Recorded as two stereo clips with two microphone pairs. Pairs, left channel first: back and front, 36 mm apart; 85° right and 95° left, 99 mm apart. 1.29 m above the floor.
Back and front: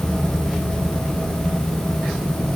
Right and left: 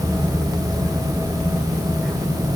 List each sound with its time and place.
Only background noise.